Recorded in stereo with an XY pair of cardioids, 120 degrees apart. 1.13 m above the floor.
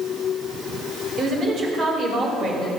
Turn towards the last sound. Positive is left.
turn(degrees=-45)